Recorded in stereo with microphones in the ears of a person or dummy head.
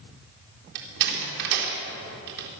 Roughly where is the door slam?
Right.